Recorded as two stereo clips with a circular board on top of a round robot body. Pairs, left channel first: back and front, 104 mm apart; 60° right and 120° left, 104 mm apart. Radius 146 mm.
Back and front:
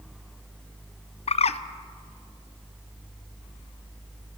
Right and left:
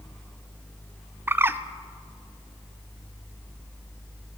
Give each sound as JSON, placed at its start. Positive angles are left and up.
{"t": 1.3, "sound": "a bird", "azimuth_deg": -170, "distance_m": 0.8}